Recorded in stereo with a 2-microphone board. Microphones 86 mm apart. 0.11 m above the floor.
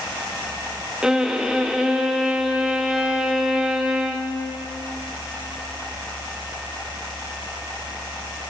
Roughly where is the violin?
Centre.